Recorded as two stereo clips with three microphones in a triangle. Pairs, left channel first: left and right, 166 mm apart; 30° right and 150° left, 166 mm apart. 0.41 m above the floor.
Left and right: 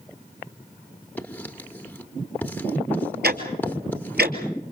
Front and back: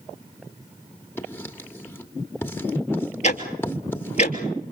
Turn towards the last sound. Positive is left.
turn(degrees=-75)